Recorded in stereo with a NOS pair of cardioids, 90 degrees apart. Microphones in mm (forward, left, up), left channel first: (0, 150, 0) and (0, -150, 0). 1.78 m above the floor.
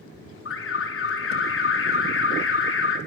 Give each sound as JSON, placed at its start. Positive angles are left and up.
{"t": 0.5, "sound": "an alarm", "azimuth_deg": 45, "distance_m": 4.5}